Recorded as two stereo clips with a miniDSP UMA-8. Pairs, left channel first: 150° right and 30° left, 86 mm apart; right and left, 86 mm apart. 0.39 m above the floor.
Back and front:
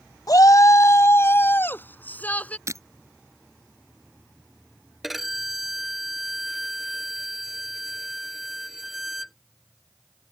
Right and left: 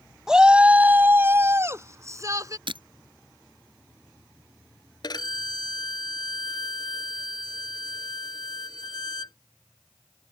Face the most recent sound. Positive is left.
turn(degrees=-60)